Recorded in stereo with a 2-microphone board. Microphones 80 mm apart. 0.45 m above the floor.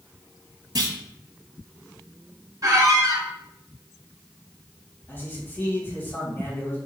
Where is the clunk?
60° right (ahead or behind), 0.8 m.